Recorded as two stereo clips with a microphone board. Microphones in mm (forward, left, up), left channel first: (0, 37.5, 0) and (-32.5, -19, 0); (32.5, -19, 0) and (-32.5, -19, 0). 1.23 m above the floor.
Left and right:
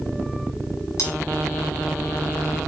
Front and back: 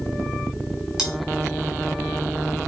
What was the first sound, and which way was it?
Cutlery clinking, 95° left.